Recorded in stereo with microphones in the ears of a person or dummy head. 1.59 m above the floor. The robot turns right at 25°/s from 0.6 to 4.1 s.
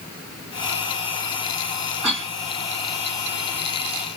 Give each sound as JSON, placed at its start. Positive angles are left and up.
{"t": 2.0, "sound": "a cough", "side_deg": 0, "distance_m": 2.5}